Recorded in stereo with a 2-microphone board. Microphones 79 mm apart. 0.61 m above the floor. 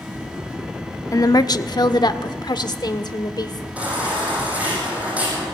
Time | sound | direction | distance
1.1 | a woman speaking | 45° left (ahead or behind) | 0.8 m
3.8 | a baby crying | 15° right (ahead or behind) | 9 m